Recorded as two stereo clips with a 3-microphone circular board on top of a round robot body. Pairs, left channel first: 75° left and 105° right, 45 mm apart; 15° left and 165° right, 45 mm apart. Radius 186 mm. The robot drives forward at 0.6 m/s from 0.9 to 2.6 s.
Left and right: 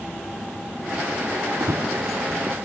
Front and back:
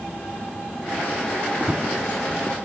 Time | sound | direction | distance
1.6 | running footsteps | 100° right | 1.4 m